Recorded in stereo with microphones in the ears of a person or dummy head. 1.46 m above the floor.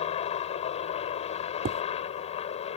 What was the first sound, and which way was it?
A helicopter, 35° left (ahead or behind).